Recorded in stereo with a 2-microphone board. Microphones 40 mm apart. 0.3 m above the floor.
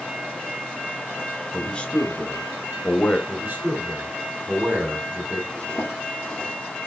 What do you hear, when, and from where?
1.5 s a man speaking: 25° left (ahead or behind), 1.1 m
3.3 s a man speaking: 50° right (ahead or behind), 2.5 m
5.5 s a zipper: 25° left (ahead or behind), 3 m